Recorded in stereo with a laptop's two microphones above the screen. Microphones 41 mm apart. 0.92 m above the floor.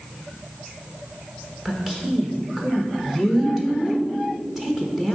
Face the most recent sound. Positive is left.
turn(degrees=-10)  # may be behind; listen again after turning